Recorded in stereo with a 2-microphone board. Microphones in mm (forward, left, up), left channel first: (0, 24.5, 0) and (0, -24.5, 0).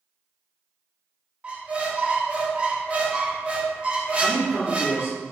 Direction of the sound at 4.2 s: 50° right (ahead or behind).